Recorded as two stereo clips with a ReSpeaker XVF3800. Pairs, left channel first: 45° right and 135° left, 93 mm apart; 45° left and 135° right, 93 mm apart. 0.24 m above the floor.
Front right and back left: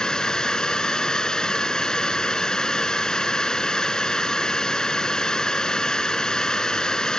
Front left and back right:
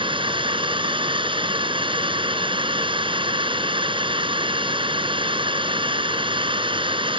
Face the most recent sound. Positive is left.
turn(degrees=-125)